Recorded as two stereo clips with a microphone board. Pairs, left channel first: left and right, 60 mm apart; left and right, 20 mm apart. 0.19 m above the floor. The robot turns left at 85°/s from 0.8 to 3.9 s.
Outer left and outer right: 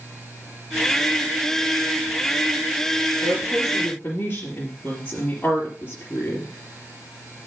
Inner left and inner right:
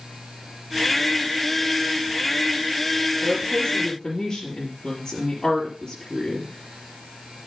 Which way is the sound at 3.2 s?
70° left (ahead or behind).